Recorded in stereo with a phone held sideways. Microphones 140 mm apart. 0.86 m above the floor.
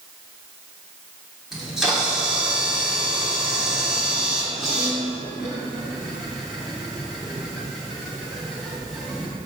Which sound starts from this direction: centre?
A camera shutter, at 1.5 s.